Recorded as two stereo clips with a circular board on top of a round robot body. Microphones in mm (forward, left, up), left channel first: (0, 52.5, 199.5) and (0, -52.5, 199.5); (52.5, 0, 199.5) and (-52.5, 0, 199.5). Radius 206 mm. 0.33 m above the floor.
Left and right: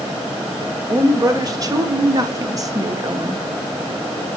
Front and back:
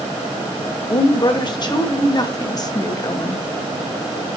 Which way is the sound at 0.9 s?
40° right.